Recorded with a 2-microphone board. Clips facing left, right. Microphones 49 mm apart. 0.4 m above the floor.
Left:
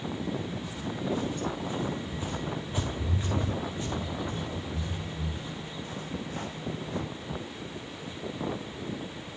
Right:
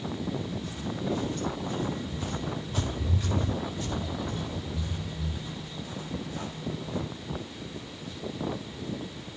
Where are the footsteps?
10° left (ahead or behind), 8.5 m; by 7.0 s 50° left (ahead or behind), 6 m.